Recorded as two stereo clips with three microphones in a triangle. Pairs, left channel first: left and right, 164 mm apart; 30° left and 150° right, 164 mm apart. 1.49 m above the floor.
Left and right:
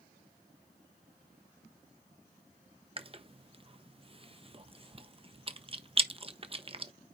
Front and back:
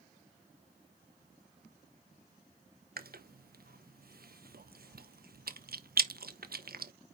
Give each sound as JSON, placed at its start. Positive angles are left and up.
{"t": 3.0, "sound": "chewing", "azimuth_deg": -145, "distance_m": 0.9}